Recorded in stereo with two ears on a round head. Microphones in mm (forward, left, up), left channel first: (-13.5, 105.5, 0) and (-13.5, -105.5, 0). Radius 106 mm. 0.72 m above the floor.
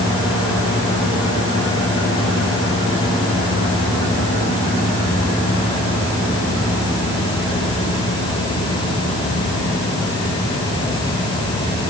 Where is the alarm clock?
No alarm clock in this recording.